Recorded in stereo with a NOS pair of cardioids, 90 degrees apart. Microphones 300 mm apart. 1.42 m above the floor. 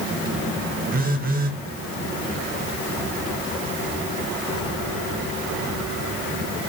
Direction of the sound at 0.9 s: 30° right.